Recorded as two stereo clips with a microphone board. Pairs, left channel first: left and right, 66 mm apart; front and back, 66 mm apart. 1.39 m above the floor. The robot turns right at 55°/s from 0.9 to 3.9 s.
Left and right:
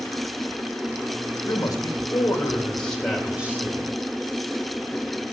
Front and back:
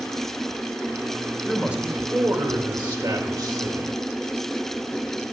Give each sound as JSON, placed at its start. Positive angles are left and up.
{"t": 1.4, "sound": "a man speaking", "azimuth_deg": 90, "distance_m": 2.5}